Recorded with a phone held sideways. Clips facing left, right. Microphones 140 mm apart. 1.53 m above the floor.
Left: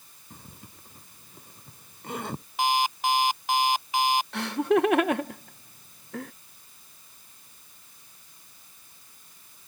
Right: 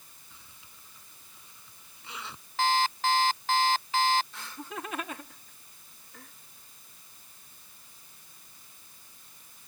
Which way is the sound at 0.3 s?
50° left (ahead or behind).